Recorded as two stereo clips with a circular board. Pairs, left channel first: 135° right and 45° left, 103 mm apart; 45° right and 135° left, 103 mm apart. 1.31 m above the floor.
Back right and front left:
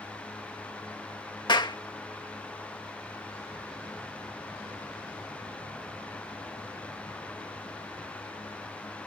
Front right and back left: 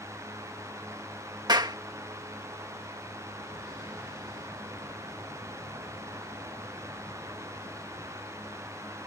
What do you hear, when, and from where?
1.5 s a clap: 175° right